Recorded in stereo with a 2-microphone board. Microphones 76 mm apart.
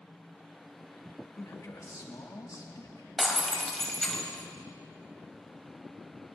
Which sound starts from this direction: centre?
Breaking glass, at 3.2 s.